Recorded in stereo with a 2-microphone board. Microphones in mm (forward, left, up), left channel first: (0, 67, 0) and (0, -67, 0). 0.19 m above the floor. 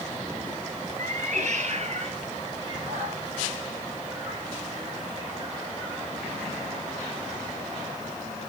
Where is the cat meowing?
70° right (ahead or behind), 1.1 m; by 6.1 s 25° right (ahead or behind), 5.5 m.